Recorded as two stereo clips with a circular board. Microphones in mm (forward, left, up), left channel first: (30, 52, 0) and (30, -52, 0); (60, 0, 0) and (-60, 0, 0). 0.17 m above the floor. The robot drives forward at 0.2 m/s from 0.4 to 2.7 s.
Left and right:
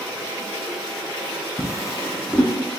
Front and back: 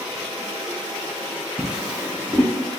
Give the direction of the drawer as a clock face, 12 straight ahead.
9 o'clock.